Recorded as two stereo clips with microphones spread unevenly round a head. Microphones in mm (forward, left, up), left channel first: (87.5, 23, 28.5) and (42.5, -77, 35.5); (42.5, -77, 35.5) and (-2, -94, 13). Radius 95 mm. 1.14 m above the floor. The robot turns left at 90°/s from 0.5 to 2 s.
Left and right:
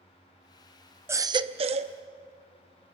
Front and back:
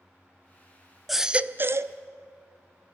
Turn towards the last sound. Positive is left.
turn(degrees=-135)